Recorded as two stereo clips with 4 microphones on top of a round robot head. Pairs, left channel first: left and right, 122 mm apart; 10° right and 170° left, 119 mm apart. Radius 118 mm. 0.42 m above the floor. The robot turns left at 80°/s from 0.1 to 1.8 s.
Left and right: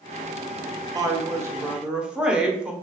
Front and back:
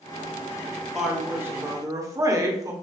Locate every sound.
0.9 s a woman speaking: 95° right, 1.1 m; by 2.7 s 165° right, 1.1 m